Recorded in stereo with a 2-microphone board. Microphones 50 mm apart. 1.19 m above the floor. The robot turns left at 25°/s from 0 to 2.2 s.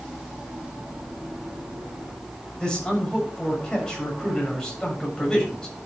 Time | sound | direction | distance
2.6 | a man speaking | 15° left (ahead or behind) | 8 m